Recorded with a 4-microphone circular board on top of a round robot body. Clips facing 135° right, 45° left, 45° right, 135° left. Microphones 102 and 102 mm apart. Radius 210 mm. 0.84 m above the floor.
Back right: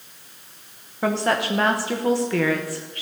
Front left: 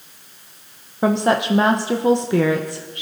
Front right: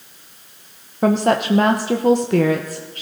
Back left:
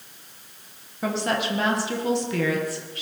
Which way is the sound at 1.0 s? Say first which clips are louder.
Front left 4 dB, front right 9 dB; 20° right.